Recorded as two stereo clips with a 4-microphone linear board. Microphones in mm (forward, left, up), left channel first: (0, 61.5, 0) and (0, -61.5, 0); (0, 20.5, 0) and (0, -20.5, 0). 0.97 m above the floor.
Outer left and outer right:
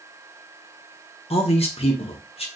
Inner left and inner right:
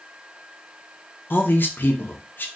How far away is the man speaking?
About 0.7 m.